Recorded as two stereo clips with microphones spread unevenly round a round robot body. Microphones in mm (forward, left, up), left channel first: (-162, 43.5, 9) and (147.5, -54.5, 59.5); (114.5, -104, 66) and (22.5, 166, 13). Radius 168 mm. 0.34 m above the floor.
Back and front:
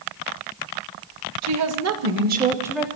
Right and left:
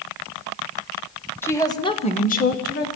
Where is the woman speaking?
15° left, 1.7 m; by 2.9 s 125° right, 1.3 m.